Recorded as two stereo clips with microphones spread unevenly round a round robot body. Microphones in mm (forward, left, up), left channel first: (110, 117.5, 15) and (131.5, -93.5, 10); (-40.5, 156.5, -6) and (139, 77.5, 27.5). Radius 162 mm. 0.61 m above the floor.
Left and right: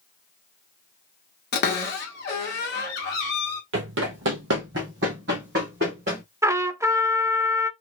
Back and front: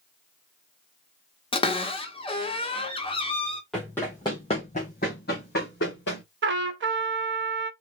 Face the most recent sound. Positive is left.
turn(degrees=-5)